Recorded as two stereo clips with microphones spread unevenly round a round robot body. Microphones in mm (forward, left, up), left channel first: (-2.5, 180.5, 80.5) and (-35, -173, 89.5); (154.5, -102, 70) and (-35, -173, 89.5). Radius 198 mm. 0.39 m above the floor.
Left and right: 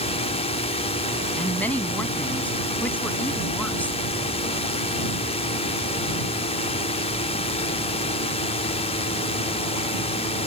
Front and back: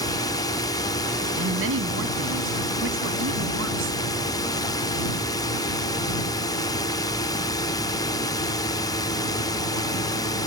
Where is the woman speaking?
170° left.